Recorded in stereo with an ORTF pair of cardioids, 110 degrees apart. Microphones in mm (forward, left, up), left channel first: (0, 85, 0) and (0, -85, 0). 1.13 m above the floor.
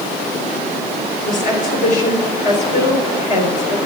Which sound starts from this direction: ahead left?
A woman speaking, at 1.2 s.